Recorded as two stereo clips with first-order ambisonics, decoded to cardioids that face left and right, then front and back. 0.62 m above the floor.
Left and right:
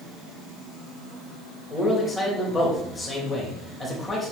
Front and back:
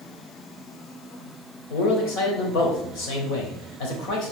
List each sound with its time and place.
1.7 s a man speaking: 15° left, 3 m